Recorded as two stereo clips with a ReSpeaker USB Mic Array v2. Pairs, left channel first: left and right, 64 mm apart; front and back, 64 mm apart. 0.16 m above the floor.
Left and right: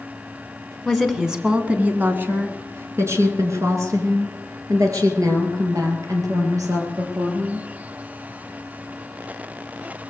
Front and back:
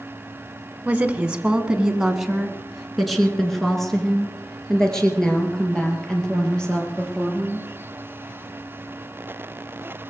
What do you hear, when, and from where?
0.8 s a woman speaking: 175° left, 1.5 m; by 7.7 s 75° right, 5 m